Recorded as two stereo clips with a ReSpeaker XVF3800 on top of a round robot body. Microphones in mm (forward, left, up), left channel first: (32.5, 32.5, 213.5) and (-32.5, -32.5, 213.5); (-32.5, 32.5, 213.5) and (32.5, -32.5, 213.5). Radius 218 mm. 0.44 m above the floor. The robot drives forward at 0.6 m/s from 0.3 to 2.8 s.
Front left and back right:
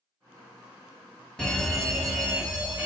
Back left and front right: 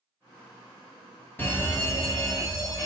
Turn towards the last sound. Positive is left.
turn(degrees=150)